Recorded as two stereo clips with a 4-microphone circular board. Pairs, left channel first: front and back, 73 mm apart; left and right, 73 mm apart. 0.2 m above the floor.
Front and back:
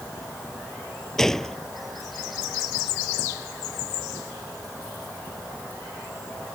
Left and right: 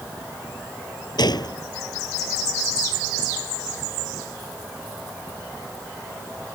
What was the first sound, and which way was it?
A gunshot, 85° left.